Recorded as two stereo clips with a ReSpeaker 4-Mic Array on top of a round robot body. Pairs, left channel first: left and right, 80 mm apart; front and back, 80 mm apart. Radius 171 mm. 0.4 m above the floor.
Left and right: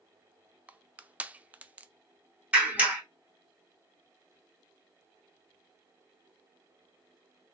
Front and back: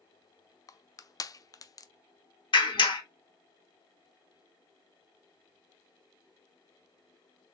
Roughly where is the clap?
Ahead.